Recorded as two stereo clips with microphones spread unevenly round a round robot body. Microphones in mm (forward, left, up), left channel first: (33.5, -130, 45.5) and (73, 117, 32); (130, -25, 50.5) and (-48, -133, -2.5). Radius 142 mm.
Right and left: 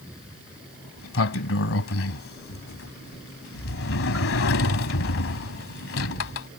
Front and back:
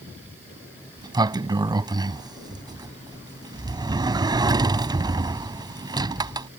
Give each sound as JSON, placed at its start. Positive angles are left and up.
{"t": 1.0, "sound": "a sliding door", "azimuth_deg": -75}